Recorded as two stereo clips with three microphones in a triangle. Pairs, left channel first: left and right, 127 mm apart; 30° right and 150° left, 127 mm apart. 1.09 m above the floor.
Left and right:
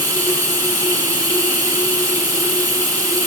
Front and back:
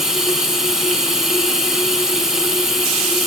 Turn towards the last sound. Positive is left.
turn(degrees=-125)